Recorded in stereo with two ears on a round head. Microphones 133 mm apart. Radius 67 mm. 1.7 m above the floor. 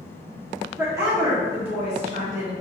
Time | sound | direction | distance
0.8 | a woman speaking | 15° right (ahead or behind) | 1.0 m